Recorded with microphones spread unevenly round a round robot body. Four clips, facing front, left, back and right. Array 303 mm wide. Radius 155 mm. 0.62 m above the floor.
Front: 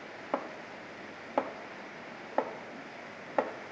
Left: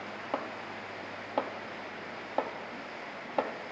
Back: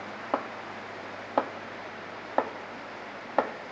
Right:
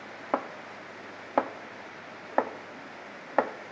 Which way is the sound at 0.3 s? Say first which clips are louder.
Right 6 dB, back 4 dB; 115° right.